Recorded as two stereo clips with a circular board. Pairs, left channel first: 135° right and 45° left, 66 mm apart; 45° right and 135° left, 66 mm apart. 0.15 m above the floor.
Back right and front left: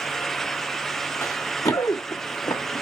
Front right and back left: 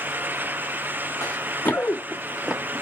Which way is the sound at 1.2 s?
90° right.